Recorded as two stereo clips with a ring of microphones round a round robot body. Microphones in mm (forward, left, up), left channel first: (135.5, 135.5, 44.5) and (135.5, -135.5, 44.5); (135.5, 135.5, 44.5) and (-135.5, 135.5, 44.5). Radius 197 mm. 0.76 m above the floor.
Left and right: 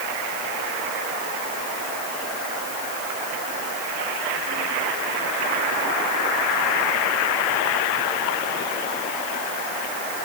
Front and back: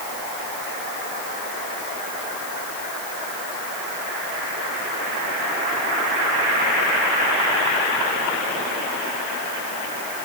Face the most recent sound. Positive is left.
No sound to turn to.